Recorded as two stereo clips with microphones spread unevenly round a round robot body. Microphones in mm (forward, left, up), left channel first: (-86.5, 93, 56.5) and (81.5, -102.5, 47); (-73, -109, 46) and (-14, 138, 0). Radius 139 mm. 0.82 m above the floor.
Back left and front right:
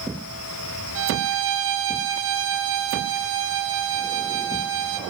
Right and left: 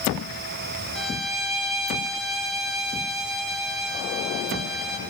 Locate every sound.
0.9 s a violin: 10° right, 1.2 m